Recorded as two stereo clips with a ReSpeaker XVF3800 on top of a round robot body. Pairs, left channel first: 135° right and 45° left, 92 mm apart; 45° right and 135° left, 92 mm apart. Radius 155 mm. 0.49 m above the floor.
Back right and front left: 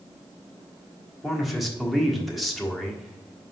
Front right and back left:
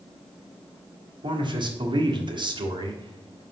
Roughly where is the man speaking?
Behind left.